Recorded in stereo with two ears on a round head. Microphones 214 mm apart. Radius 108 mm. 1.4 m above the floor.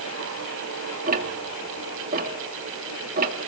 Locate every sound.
1.1 s ticking: 35° right (ahead or behind), 1.7 m